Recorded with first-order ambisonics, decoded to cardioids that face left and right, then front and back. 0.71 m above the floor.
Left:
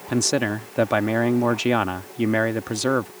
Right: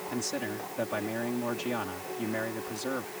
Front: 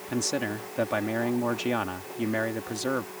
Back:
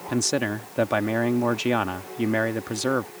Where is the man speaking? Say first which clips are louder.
Left 13 dB, back 4 dB; 115° left.